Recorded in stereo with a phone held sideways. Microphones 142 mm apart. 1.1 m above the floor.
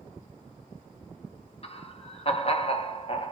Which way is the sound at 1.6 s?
45° left (ahead or behind).